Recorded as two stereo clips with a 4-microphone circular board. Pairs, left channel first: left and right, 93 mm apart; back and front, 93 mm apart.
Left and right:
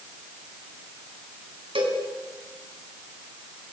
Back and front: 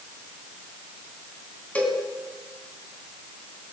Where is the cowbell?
105° right, 4 m.